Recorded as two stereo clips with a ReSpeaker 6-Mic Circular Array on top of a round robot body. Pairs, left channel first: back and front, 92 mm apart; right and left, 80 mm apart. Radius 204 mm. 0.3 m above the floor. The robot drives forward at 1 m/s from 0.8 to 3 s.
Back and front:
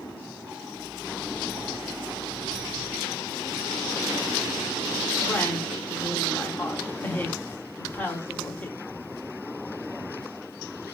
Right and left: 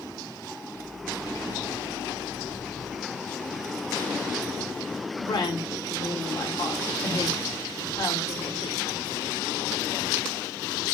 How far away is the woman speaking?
About 5.5 m.